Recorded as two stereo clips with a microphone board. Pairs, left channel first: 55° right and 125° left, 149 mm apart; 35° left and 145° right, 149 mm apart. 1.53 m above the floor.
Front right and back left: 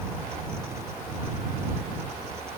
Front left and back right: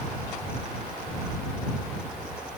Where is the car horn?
I don't hear a car horn.